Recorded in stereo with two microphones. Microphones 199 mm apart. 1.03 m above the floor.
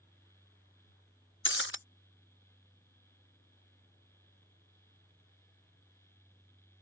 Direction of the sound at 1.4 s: 65° left (ahead or behind).